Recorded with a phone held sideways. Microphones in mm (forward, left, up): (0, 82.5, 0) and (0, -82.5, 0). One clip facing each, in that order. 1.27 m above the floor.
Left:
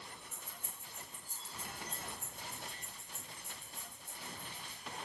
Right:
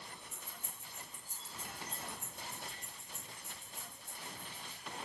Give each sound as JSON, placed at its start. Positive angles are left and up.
{"t": 0.3, "sound": "keys jangling", "side_deg": -30, "distance_m": 1.9}